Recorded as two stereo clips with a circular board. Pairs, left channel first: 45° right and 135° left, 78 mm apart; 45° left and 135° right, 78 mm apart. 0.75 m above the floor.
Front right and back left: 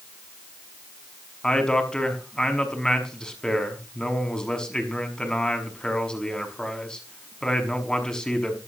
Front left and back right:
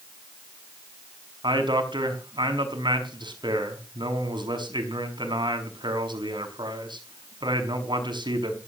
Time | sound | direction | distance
1.4 | a man speaking | 125° right | 5.5 m